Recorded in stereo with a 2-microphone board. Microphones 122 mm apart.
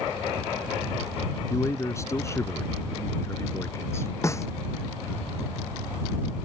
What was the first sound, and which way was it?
A man speaking, 25° left (ahead or behind).